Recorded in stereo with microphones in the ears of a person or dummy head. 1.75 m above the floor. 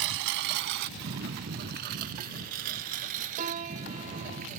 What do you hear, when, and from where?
0.0 s a lawn mower: 60° right (ahead or behind); by 4.6 s 40° right (ahead or behind)
3.4 s a piano: 40° right (ahead or behind)